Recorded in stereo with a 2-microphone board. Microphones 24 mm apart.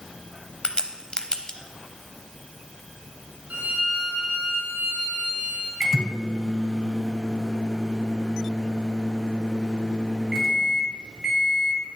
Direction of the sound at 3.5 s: 80° right.